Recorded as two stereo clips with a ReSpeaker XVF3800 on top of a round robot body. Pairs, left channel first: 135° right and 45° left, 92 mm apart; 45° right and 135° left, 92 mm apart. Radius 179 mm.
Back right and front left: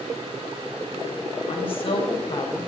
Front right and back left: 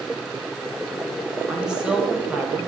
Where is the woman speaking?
140° right, 4 m; by 2.7 s 150° right, 3.5 m.